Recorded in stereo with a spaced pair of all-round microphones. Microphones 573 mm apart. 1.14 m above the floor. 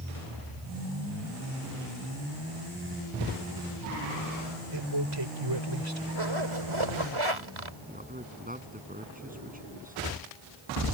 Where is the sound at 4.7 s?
45° right (ahead or behind).